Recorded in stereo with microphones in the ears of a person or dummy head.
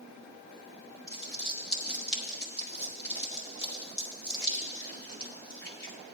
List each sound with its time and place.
1.1 s crumpling: 20° left (ahead or behind), 0.9 m